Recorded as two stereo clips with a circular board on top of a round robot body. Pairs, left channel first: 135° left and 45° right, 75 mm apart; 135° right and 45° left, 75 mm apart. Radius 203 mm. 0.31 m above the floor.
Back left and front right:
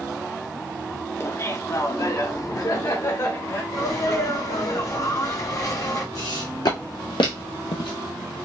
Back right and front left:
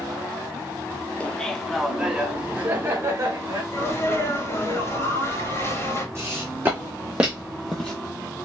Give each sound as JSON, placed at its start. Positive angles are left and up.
{"t": 1.2, "sound": "laughter", "azimuth_deg": 165, "distance_m": 1.0}
{"t": 3.7, "sound": "a sneeze", "azimuth_deg": 175, "distance_m": 2.5}
{"t": 6.2, "sound": "footsteps", "azimuth_deg": 100, "distance_m": 1.5}